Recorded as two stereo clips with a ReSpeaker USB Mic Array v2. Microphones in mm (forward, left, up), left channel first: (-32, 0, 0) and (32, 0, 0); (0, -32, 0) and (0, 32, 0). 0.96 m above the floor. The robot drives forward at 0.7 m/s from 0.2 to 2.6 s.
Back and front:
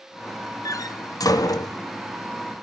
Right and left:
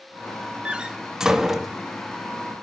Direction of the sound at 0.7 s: 160° left.